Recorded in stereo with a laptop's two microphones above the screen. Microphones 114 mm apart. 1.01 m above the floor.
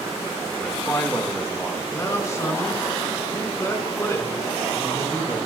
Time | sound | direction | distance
0.6 | a man speaking | 20° left (ahead or behind) | 1.2 m
1.9 | a man speaking | 25° left (ahead or behind) | 3.5 m